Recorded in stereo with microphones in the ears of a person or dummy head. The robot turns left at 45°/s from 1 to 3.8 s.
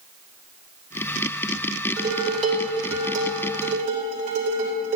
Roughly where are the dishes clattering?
Ahead right.